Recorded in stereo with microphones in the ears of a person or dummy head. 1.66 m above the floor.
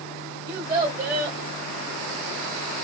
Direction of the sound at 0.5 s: 25° right (ahead or behind).